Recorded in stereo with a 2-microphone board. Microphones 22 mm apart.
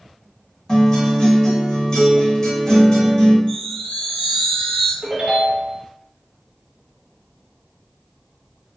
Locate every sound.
0.7 s a guitar: 30° left (ahead or behind), 1.2 m
3.5 s a chime: 55° left (ahead or behind), 1.5 m
5.0 s a ringtone: 55° right (ahead or behind), 1.3 m